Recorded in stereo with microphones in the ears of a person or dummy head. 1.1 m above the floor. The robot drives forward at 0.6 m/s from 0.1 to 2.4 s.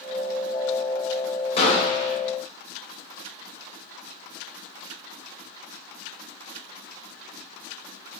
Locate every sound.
1.6 s a gunshot: 25° left (ahead or behind), 0.5 m; by 2.2 s 20° left (ahead or behind), 0.6 m